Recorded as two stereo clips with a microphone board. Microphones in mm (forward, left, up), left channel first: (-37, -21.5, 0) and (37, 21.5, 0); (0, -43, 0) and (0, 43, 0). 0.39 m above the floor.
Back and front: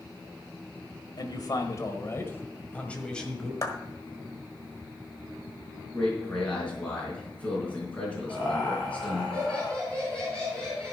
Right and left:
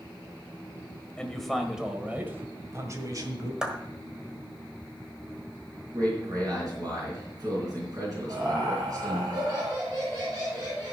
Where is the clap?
170° left, 1.3 m.